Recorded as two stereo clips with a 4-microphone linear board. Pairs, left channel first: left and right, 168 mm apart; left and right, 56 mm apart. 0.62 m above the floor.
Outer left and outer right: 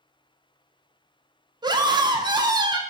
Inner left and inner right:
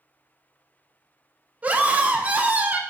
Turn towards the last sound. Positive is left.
turn(degrees=-25)  # may be behind; listen again after turning